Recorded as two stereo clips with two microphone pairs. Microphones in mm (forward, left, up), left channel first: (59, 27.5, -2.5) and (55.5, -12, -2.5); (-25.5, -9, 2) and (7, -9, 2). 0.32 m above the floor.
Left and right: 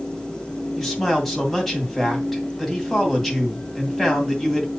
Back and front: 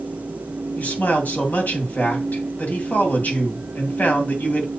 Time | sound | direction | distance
0.8 | a man speaking | 175° left | 2.5 m